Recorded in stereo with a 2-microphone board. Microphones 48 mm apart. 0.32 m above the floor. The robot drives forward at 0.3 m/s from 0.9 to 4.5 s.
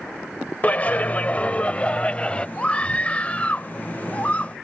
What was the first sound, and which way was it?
A clap, 30° left (ahead or behind).